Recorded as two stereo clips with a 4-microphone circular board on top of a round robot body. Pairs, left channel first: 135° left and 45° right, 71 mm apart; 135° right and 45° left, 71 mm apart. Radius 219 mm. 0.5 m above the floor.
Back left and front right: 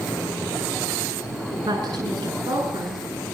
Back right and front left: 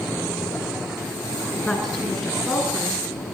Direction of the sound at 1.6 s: 50° right.